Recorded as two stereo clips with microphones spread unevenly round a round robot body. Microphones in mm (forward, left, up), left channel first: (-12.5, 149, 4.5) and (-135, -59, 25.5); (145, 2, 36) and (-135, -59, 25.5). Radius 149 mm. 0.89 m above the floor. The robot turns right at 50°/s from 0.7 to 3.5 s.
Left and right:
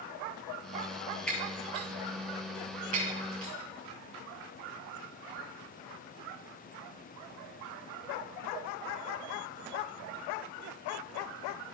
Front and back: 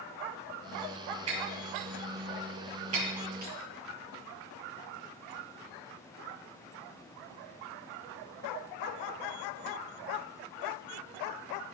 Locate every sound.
1.3 s breaking glass: 145° left, 9.5 m; by 3.5 s 105° right, 9.5 m